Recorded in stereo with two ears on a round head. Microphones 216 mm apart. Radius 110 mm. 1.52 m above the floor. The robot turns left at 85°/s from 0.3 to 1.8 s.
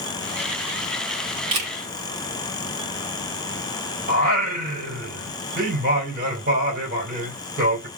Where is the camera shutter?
20° right (ahead or behind), 2 m; by 1.7 s 40° right (ahead or behind), 2 m.